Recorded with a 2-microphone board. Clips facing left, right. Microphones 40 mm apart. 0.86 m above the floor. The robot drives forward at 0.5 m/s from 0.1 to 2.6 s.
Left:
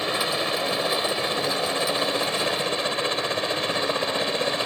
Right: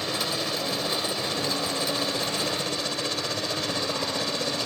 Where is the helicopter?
30° left (ahead or behind).